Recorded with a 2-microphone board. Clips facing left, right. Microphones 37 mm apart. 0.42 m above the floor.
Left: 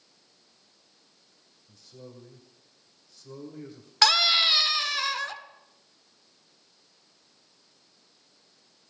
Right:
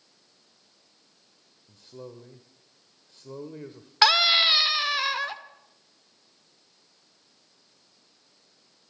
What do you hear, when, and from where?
1.7 s a man speaking: 40° right (ahead or behind), 1.5 m
4.0 s a scream: 15° right (ahead or behind), 0.9 m